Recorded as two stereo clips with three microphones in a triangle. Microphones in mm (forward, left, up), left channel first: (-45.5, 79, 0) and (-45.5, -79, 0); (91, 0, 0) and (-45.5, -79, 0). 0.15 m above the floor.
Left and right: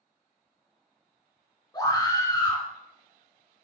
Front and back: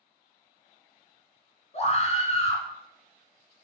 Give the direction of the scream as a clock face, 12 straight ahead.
11 o'clock.